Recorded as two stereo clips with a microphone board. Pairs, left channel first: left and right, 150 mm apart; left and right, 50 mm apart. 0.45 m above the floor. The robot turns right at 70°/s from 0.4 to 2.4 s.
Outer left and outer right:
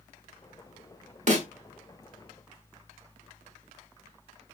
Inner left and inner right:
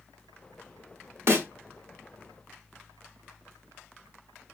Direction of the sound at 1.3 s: 55° right (ahead or behind).